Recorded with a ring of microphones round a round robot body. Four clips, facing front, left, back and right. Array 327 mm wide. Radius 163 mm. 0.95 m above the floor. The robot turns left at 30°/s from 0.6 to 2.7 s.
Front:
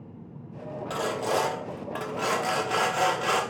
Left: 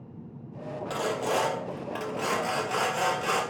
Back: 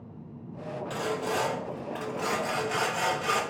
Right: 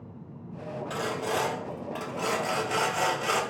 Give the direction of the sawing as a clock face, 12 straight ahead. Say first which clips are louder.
Left 3 dB, front 4 dB; 10 o'clock.